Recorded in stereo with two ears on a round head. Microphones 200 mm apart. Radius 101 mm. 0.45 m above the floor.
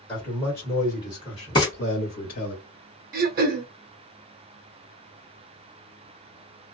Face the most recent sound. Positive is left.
turn(degrees=-40)  # may be behind; listen again after turning